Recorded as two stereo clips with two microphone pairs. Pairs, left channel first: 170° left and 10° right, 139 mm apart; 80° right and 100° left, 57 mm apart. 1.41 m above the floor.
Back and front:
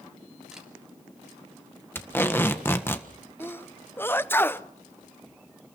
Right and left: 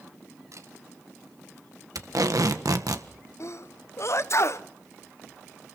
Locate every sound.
0.5 s a camera shutter: 75° left, 3 m
1.9 s tape being pulled: 95° left, 1.5 m
3.4 s a sneeze: 115° right, 0.7 m